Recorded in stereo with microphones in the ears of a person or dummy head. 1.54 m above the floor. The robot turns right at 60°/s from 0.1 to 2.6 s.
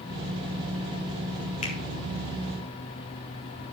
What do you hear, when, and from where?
1.6 s a finger snap: 35° left (ahead or behind), 1.9 m; by 1.8 s 30° left (ahead or behind), 1.9 m